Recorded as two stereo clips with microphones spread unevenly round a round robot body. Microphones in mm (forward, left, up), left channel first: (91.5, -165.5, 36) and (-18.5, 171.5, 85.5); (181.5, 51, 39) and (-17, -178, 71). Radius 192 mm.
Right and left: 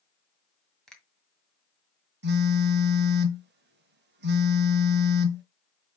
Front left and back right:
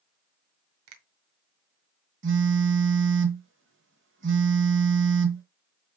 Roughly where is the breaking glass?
No breaking glass in this recording.